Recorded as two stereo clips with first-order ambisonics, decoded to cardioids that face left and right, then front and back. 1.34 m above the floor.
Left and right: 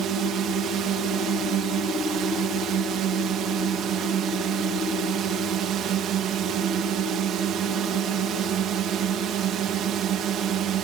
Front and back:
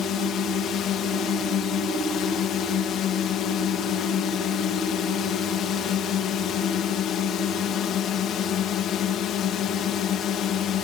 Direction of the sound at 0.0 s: 45° right.